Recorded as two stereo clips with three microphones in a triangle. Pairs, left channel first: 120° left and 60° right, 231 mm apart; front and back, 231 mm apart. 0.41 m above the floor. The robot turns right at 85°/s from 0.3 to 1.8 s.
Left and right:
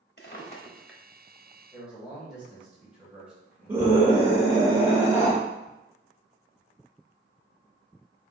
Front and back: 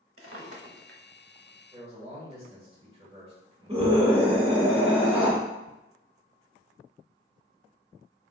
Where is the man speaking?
150° right, 1.4 m; by 4.7 s 145° right, 1.4 m.